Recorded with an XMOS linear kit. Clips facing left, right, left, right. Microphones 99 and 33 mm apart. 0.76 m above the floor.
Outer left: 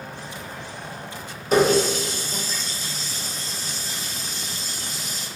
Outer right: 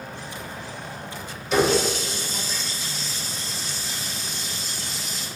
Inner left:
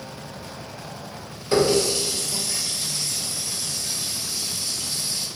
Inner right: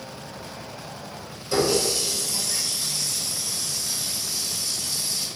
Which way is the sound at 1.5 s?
40° left (ahead or behind).